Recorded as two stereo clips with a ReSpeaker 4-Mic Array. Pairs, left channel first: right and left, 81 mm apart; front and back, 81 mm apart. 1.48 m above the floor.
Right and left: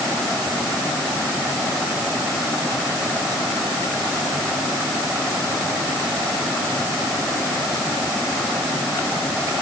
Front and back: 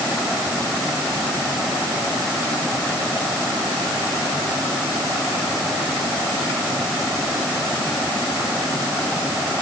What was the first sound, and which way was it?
Only background noise.